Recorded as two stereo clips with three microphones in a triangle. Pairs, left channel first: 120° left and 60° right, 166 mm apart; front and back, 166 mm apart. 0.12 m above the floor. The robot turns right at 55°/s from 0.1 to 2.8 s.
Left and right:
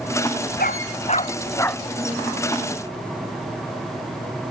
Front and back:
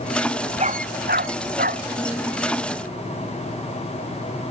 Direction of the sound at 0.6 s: 135° left.